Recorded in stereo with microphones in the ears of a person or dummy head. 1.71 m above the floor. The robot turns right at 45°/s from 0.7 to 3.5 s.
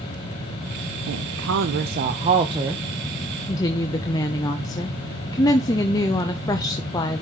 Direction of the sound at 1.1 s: 90° right.